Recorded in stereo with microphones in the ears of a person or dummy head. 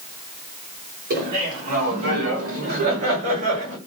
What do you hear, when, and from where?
1.1 s laughter: 50° right (ahead or behind), 7 m; by 3.8 s 40° right (ahead or behind), 8.5 m